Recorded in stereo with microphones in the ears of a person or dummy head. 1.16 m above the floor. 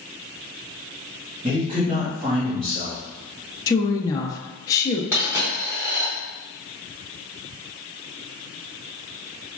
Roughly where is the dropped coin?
Centre.